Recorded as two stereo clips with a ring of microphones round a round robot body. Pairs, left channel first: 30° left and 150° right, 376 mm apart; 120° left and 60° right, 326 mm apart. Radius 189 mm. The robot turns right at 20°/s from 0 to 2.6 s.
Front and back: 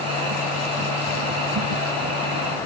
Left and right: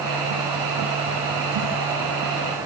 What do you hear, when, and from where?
Only background noise.